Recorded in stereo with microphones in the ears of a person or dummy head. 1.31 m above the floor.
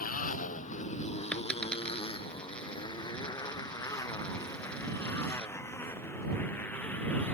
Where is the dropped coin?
5° left (ahead or behind).